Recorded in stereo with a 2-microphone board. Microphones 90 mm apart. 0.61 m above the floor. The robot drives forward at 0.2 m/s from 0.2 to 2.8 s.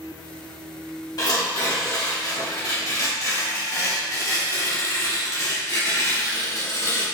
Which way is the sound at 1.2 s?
45° left (ahead or behind).